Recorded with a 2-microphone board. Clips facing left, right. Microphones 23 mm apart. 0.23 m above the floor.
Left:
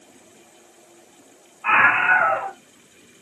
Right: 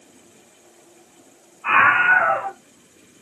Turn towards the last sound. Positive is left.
turn(degrees=35)  # may be behind; listen again after turning